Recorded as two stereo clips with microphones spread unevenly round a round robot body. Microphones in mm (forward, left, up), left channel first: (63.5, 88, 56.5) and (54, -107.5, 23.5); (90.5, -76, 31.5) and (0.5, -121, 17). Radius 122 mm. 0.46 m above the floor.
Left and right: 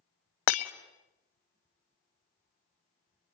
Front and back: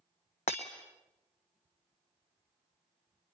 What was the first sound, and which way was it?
Breaking glass, 80° left.